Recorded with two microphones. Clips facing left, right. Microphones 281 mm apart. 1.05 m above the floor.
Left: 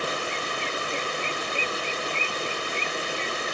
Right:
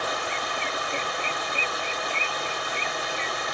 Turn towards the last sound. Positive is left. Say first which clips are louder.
# left 1 dB
turn(degrees=30)  # may be behind; listen again after turning